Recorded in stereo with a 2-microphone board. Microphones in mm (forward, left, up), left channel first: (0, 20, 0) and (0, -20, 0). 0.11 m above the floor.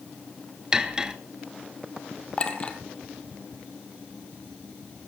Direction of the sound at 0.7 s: 15° right (ahead or behind).